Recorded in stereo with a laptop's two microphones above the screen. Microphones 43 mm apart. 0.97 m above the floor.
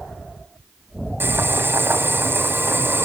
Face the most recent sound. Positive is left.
turn(degrees=-55)  # may be behind; listen again after turning